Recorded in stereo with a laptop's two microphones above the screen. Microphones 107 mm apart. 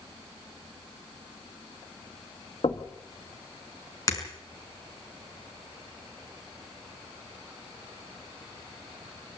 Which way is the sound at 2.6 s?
60° left (ahead or behind).